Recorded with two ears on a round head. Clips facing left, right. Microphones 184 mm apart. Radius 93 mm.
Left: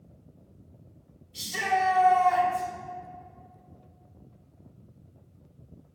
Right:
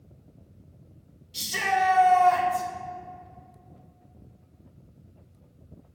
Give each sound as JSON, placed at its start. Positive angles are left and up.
{"t": 1.3, "sound": "a shout", "side_deg": -60, "distance_m": 1.4}